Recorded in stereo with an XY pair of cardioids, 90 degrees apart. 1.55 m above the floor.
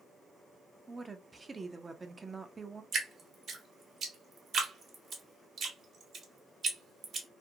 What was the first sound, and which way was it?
A woman speaking, 30° right.